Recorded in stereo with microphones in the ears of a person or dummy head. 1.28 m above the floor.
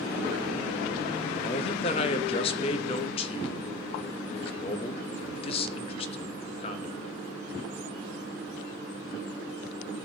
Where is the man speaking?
35° left (ahead or behind), 0.6 m.